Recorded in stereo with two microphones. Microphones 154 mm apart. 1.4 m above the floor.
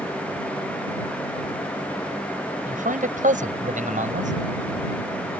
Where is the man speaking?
60° right (ahead or behind); by 4.3 s 55° right (ahead or behind).